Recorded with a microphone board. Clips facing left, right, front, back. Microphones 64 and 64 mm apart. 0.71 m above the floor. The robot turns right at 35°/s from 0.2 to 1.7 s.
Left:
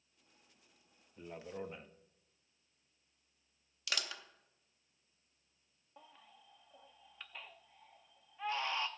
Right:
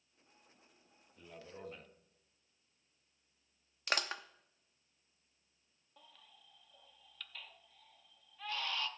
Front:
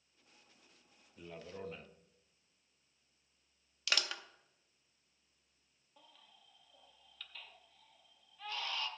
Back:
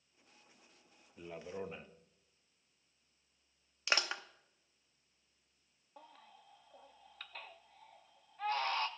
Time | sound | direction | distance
1.2 | a man speaking | 120° left | 0.6 m
3.9 | crushing | 125° right | 0.6 m
6.0 | a baby crying | 150° left | 0.6 m